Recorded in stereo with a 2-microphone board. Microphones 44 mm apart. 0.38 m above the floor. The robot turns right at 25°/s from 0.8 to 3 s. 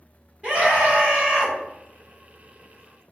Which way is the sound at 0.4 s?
20° right (ahead or behind).